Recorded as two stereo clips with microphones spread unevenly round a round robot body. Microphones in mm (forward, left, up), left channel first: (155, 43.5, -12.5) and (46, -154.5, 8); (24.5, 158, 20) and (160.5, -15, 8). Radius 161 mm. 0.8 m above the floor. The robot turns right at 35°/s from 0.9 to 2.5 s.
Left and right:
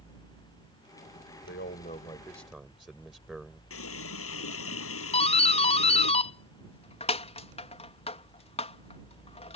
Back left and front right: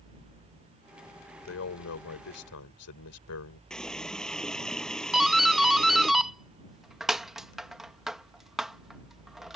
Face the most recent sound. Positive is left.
turn(degrees=30)